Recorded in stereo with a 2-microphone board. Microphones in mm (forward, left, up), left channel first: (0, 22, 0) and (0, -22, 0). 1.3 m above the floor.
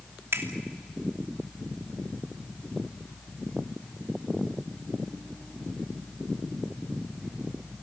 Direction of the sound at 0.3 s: 75° right (ahead or behind).